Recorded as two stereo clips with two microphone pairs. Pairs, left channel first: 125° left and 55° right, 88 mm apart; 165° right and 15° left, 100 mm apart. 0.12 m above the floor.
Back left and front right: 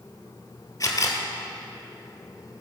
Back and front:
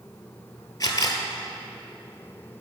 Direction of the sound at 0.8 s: 155° left.